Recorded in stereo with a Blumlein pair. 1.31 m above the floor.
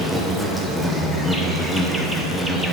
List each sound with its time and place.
0.0 s an insect: 5° right, 0.9 m